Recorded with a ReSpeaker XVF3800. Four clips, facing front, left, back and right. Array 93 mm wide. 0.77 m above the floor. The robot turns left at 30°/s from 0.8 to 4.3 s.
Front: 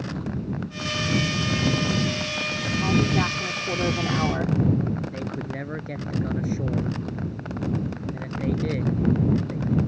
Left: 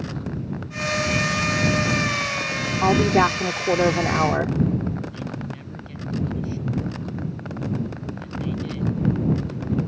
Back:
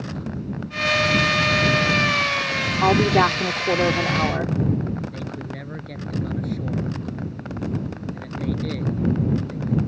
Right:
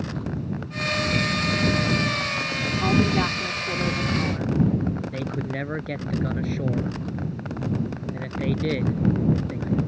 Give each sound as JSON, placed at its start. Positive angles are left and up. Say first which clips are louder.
{"t": 2.8, "sound": "a woman speaking", "louder": "left 5 dB, back 7 dB", "azimuth_deg": 150}
{"t": 5.1, "sound": "a man speaking", "louder": "right 3 dB, front 1 dB", "azimuth_deg": -75}